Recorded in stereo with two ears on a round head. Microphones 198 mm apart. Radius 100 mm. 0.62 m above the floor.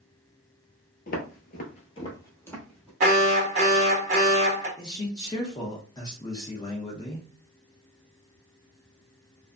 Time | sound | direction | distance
1.1 | footsteps | 45° left (ahead or behind) | 0.9 m
3.0 | an alarm | 35° right (ahead or behind) | 1.6 m
4.8 | a man speaking | 20° left (ahead or behind) | 0.6 m